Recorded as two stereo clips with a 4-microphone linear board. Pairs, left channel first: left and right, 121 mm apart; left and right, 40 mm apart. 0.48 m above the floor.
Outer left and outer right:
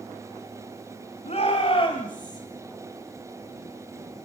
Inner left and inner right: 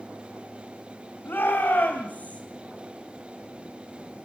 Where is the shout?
65° left (ahead or behind), 2.5 m; by 2.4 s 30° left (ahead or behind), 2.5 m.